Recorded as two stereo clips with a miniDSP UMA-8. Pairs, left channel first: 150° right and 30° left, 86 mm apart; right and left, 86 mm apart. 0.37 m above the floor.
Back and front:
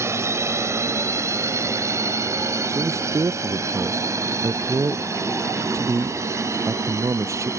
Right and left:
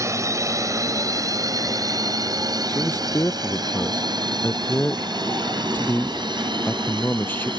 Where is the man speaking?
25° right.